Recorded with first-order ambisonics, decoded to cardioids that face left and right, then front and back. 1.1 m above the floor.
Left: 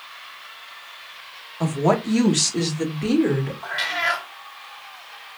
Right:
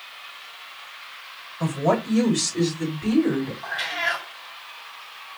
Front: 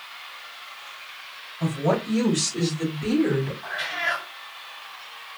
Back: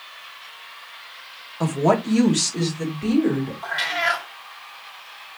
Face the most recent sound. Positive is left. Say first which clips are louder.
# left 3 dB, back 7 dB
turn(degrees=140)